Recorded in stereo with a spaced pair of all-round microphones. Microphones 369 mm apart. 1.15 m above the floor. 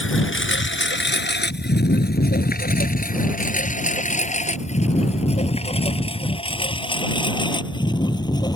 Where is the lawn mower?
35° left (ahead or behind); by 8.6 s 10° left (ahead or behind).